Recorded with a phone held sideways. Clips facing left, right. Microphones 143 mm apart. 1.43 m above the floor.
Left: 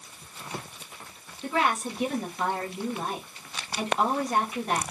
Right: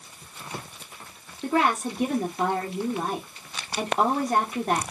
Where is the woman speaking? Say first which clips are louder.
Right 3 dB; 45° right (ahead or behind), 1.4 m.